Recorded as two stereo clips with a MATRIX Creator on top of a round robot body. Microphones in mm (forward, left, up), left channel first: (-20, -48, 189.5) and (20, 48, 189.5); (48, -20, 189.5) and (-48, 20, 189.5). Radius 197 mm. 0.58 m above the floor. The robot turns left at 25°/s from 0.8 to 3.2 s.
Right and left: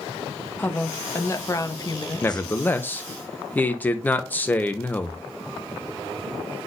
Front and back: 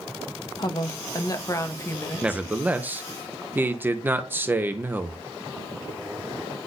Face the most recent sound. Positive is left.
turn(degrees=-160)